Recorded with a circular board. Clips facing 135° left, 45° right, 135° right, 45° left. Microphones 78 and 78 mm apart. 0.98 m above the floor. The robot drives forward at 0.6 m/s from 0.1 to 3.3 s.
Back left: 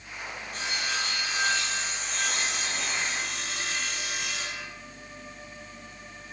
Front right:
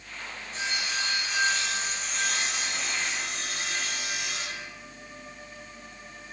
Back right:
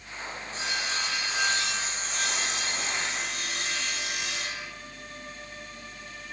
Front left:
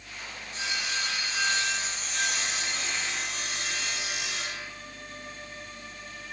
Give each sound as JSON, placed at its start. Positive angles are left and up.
{"t": 0.5, "sound": "sawing", "azimuth_deg": 165, "distance_m": 2.5}